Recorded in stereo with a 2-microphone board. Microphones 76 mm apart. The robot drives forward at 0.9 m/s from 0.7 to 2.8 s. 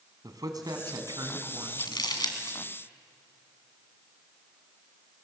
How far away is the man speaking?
About 2.5 m.